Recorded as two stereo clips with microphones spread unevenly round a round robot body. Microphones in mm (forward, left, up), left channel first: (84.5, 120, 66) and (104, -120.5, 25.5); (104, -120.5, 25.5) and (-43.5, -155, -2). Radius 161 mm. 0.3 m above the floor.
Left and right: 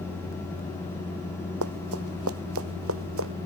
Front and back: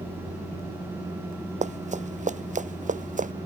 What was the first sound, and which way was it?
Running footsteps, 125° right.